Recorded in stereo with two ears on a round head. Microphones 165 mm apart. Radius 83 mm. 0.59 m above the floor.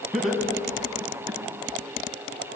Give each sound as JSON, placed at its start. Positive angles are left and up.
{"t": 0.1, "sound": "laughter", "side_deg": 0, "distance_m": 6.0}